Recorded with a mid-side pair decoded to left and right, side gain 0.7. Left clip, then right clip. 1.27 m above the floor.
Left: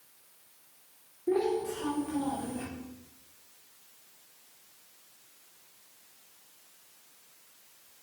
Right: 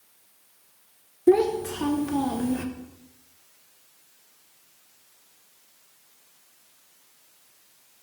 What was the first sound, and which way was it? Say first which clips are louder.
A child speaking: right 9 dB; 55° right.